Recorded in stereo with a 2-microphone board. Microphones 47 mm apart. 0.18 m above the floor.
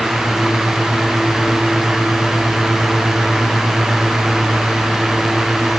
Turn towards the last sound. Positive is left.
No sound to turn to.